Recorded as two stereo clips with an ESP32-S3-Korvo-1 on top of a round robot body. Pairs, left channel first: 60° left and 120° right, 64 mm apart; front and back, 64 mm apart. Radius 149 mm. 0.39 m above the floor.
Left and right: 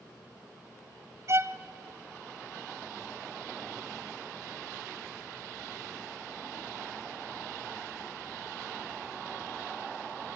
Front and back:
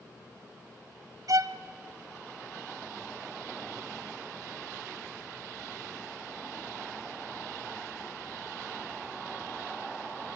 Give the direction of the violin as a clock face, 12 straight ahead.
5 o'clock.